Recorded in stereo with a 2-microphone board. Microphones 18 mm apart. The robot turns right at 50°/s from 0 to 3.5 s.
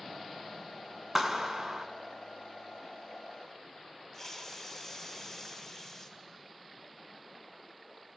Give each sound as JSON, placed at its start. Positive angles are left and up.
{"t": 1.1, "sound": "a clap", "azimuth_deg": -130, "distance_m": 1.5}
{"t": 4.1, "sound": "a hiss", "side_deg": 25, "distance_m": 2.5}